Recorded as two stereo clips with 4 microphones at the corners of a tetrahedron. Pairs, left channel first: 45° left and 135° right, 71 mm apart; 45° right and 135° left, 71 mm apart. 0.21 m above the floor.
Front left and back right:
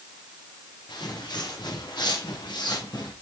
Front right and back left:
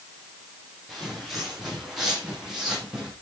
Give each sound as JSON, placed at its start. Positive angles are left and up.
{"t": 0.9, "sound": "footsteps", "azimuth_deg": 45, "distance_m": 7.5}